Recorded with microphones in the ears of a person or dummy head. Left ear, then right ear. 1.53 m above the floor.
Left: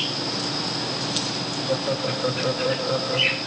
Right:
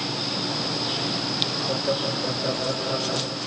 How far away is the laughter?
About 1.2 m.